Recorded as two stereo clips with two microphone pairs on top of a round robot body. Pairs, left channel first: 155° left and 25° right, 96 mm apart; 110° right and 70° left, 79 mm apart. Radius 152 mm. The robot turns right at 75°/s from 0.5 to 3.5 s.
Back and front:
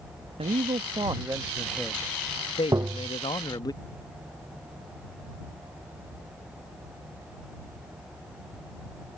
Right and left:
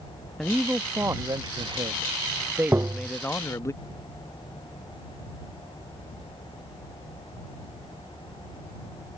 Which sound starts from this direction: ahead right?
A man speaking, at 0.4 s.